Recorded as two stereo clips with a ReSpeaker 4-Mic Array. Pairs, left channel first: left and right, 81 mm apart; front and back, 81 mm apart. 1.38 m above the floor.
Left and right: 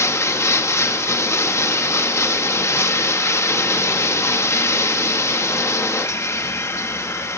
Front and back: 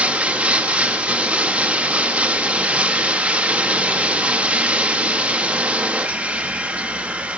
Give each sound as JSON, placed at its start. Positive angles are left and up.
{"t": 0.0, "sound": "running water", "azimuth_deg": 115, "distance_m": 0.8}